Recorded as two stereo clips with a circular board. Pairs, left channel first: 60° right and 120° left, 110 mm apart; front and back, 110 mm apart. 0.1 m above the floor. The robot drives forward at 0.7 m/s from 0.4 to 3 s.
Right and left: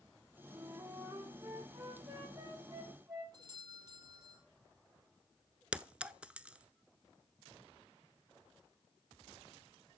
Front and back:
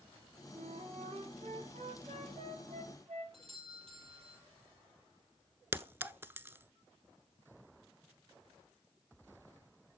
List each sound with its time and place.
0.5 s a flute: straight behind, 3.5 m
3.3 s a doorbell: 170° left, 4 m
5.7 s a clink: straight behind, 0.7 m